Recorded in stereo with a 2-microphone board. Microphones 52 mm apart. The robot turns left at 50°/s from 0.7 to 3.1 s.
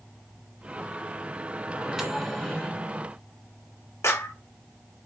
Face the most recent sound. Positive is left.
turn(degrees=65)  # may be behind; listen again after turning